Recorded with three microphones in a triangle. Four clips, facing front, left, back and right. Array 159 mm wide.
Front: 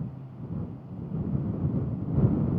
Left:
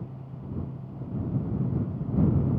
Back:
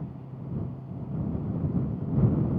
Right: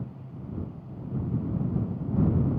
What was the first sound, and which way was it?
Only background noise.